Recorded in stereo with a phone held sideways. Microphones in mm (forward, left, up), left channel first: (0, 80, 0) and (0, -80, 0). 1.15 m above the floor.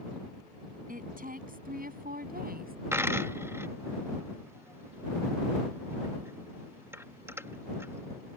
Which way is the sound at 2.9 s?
15° right (ahead or behind).